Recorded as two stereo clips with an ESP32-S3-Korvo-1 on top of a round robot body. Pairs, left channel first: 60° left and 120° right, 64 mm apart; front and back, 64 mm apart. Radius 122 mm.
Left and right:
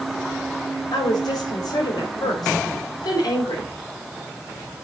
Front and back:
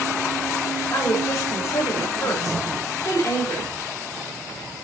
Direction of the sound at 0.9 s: 45° left.